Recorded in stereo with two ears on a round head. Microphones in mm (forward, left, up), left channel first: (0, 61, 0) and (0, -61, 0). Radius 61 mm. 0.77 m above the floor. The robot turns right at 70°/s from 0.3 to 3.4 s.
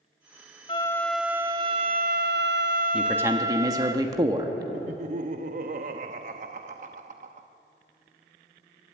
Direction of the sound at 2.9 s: 175° right.